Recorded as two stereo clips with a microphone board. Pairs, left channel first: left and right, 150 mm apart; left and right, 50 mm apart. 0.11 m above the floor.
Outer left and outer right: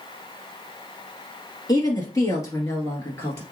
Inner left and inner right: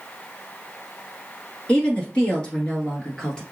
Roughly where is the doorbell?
No doorbell in this recording.